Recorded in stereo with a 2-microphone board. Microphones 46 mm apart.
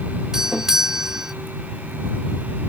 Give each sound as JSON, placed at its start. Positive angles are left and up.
{"t": 0.3, "sound": "a doorbell", "side_deg": -10}